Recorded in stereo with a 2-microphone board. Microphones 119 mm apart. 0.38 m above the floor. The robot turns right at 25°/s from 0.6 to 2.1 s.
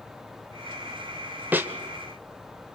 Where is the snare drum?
15° right (ahead or behind), 1.1 m; by 1.7 s 20° right (ahead or behind), 1.1 m.